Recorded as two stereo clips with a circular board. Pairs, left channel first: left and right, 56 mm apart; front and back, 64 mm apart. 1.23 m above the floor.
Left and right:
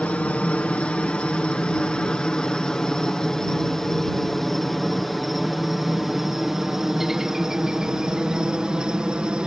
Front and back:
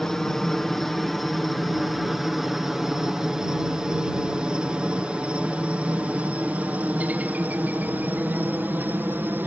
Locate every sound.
0.0 s a helicopter: 75° left; by 9.5 s 155° right